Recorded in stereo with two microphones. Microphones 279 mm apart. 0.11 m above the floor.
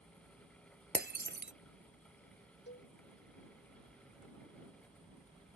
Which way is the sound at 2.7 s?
45° left (ahead or behind).